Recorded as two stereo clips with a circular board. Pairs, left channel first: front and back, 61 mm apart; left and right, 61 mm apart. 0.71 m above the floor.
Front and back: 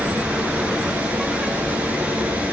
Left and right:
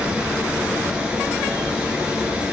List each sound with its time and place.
0.0 s running water: 145° right, 0.7 m